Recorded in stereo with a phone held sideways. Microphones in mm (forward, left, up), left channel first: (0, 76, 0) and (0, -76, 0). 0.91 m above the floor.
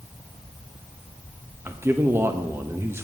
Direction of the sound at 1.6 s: 15° right (ahead or behind).